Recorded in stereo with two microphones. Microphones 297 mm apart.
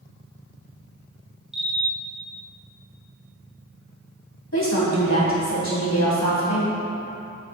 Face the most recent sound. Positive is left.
turn(degrees=60)  # may be behind; listen again after turning